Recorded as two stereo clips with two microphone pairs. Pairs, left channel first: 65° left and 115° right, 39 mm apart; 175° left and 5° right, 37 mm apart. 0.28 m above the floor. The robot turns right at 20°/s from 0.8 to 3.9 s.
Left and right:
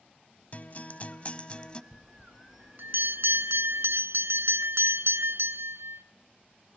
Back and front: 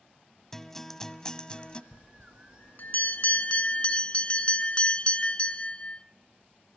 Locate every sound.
0.5 s a guitar: 100° left, 1.0 m; by 1.8 s 120° left, 1.0 m
1.9 s a bell: 160° right, 0.9 m; by 6.0 s 120° right, 0.9 m